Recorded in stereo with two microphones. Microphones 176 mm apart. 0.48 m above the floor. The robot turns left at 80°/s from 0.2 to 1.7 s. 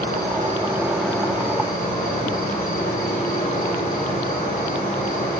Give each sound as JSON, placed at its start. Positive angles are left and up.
{"t": 0.0, "sound": "an insect", "azimuth_deg": -115, "distance_m": 3.0}